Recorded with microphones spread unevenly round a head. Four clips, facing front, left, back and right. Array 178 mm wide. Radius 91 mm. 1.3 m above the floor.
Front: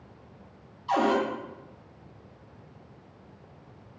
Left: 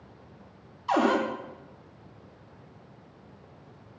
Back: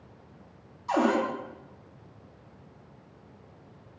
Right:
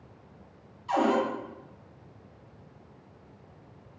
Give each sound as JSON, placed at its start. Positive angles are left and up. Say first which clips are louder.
{"t": 0.9, "sound": "a cupboard door", "louder": "left 1 dB, even", "azimuth_deg": 115, "distance_m": 0.5}